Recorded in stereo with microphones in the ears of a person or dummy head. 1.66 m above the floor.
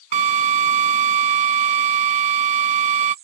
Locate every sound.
0.1 s a drill: 35° right (ahead or behind)